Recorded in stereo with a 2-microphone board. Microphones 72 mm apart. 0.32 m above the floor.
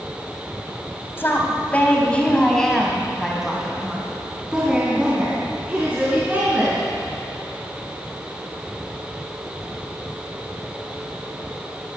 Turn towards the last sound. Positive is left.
turn(degrees=-25)  # may be behind; listen again after turning